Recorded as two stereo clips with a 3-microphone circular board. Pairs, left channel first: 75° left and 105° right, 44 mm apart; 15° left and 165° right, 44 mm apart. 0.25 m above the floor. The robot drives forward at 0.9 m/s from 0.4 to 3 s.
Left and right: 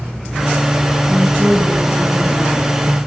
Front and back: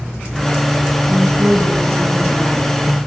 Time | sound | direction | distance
1.1 | a woman speaking | 170° right | 2.5 m